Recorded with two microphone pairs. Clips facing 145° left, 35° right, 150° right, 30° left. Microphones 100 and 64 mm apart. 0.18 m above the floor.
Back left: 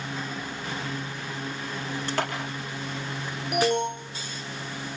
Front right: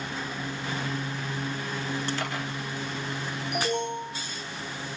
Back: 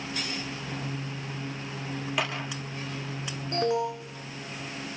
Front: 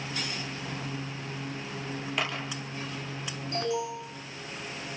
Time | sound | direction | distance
2.2 | a clap | 125° left | 8 m
3.5 | an alarm | 160° left | 4 m